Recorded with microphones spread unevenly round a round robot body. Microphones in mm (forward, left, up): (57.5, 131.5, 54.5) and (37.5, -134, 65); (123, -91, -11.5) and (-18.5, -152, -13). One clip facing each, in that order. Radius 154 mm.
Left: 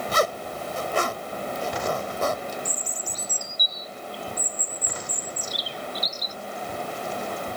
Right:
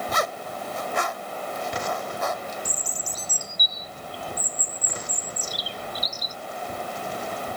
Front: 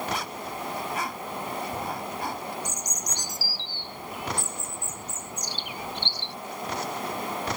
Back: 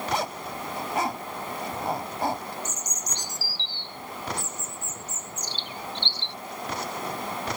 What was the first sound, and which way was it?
A zipper, 140° left.